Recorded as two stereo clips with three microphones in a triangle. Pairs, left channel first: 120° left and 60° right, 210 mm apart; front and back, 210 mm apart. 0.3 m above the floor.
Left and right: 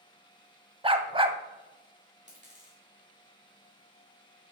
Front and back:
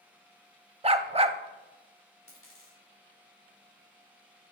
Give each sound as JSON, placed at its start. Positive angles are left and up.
{"t": 0.8, "sound": "a dog barking", "azimuth_deg": -120, "distance_m": 0.5}
{"t": 2.3, "sound": "a dropped coin", "azimuth_deg": -5, "distance_m": 4.0}